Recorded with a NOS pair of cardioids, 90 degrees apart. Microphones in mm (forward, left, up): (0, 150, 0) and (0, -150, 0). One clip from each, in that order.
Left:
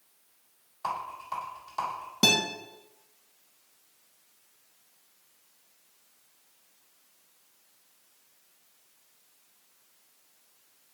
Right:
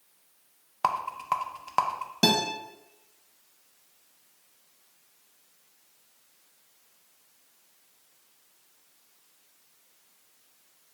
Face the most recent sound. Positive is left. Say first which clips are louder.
# even
turn(degrees=0)